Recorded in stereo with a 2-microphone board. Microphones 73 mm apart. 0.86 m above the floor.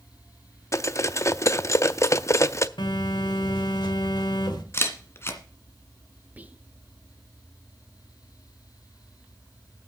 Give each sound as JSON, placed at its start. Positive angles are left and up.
{"t": 0.7, "sound": "cutlery clinking", "side_deg": 40, "distance_m": 0.5}
{"t": 2.8, "sound": "a phone buzzing", "side_deg": 85, "distance_m": 2.0}
{"t": 4.7, "sound": "a camera shutter", "side_deg": 35, "distance_m": 1.8}
{"t": 6.4, "sound": "whispering", "side_deg": -20, "distance_m": 0.6}